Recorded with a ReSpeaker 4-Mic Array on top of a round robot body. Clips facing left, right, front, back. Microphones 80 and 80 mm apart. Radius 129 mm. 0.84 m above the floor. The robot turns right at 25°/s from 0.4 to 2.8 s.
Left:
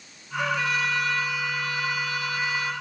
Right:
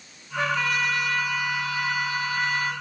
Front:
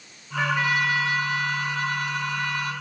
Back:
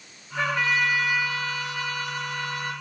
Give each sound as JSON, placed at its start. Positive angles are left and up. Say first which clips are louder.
{"t": 0.4, "sound": "a trumpet", "louder": "right 1 dB, front 1 dB", "azimuth_deg": -85, "distance_m": 7.5}